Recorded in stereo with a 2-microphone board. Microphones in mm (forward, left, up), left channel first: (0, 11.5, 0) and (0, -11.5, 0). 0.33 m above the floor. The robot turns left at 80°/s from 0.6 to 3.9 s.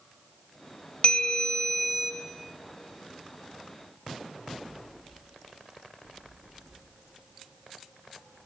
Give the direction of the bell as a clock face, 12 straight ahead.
10 o'clock.